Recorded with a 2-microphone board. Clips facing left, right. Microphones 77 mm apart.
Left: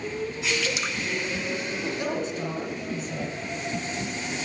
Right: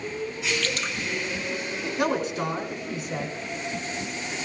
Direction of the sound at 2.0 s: 80° right.